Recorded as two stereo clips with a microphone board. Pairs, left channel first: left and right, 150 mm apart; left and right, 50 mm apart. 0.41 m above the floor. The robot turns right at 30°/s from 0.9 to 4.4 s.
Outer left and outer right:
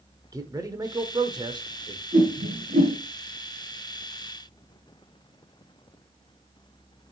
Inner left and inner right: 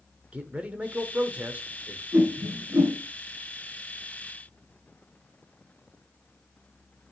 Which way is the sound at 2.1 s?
75° right (ahead or behind).